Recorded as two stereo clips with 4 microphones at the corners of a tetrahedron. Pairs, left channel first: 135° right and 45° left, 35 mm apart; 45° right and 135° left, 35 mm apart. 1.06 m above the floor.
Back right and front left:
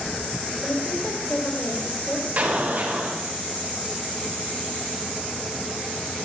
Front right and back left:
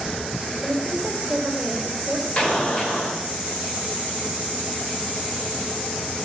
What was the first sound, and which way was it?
A woman speaking, 155° right.